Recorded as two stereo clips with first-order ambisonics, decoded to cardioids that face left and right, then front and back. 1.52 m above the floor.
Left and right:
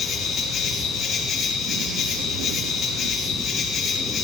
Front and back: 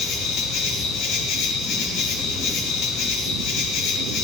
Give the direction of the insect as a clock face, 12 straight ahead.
11 o'clock.